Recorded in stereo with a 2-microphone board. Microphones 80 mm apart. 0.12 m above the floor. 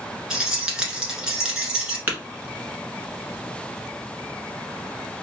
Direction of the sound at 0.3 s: 10° right (ahead or behind).